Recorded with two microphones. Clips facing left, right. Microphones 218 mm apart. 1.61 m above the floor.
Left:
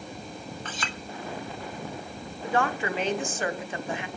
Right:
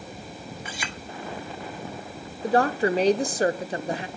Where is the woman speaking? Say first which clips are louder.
Right 6 dB; 35° right (ahead or behind), 1.3 m.